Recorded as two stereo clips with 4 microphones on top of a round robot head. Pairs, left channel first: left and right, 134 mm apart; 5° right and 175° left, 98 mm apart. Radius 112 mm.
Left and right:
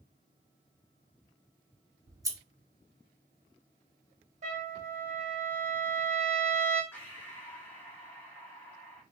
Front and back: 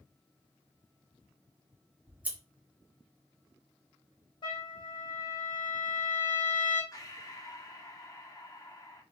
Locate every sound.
2.1 s scissors: 125° right, 1.1 m
4.4 s a trumpet: 55° right, 1.8 m
6.9 s breathing: 20° left, 1.6 m